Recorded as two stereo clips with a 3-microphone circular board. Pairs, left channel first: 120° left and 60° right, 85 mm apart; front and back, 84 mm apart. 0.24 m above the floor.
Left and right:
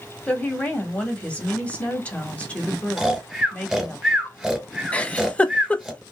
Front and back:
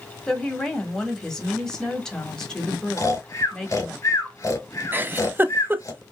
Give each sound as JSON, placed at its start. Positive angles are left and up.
{"t": 0.3, "sound": "a woman speaking", "azimuth_deg": 70, "distance_m": 1.5}
{"t": 3.0, "sound": "snoring", "azimuth_deg": 20, "distance_m": 1.8}
{"t": 4.9, "sound": "a giggle", "azimuth_deg": 175, "distance_m": 0.5}